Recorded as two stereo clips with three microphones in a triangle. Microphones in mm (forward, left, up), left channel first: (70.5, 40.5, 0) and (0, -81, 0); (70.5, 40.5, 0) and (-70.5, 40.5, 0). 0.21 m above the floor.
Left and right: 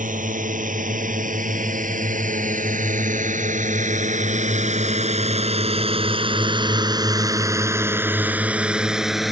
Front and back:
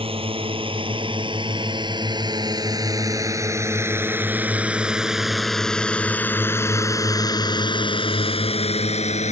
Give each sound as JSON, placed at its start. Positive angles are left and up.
{"t": 0.0, "sound": "a drone", "azimuth_deg": -135}